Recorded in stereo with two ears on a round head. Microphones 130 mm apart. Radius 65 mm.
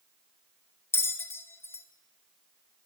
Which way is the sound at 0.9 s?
20° left (ahead or behind).